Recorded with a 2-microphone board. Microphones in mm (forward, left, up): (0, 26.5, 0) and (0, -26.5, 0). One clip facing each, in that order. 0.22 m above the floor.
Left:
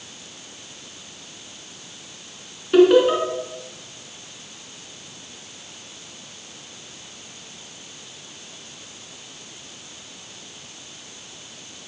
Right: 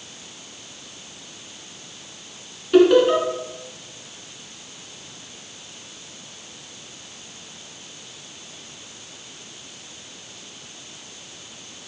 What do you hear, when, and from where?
2.7 s laughter: 5° left (ahead or behind), 3 m